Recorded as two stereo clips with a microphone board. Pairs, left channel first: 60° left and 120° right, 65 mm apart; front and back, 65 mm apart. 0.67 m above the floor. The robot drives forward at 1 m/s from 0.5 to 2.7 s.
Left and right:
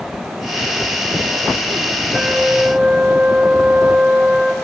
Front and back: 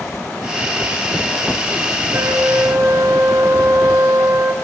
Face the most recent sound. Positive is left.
turn(degrees=165)